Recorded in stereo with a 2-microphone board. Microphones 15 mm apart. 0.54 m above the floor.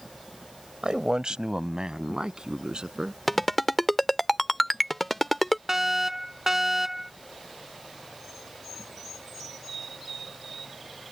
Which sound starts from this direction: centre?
A ringtone, at 3.3 s.